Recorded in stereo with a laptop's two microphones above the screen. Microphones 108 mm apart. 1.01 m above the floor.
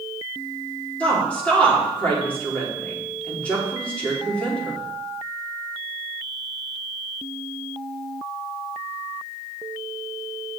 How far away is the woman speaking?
About 2.5 m.